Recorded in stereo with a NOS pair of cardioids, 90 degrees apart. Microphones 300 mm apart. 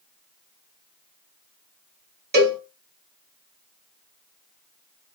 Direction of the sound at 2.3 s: 35° right.